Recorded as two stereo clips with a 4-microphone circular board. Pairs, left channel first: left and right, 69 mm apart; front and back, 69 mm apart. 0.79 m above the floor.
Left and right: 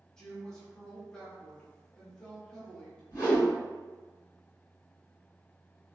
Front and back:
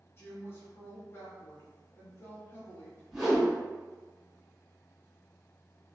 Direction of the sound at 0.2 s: 15° left.